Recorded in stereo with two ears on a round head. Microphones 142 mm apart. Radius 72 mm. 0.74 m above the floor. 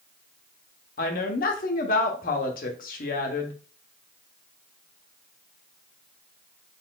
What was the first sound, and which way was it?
A woman speaking, 60° left (ahead or behind).